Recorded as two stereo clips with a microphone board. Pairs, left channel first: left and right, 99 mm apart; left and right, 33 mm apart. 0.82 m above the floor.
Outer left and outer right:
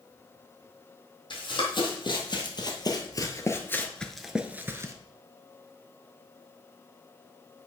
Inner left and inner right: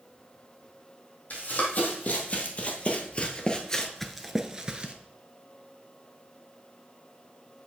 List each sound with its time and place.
1.3 s running footsteps: 55° left (ahead or behind), 2 m; by 4.9 s 30° right (ahead or behind), 0.9 m